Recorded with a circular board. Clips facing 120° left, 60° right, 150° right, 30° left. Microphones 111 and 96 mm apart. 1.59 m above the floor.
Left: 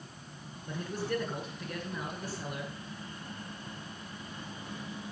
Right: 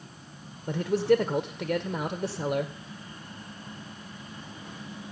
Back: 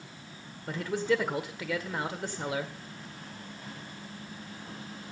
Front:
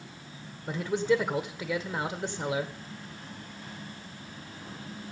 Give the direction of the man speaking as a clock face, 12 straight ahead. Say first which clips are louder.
Right 12 dB, front 2 dB; 2 o'clock.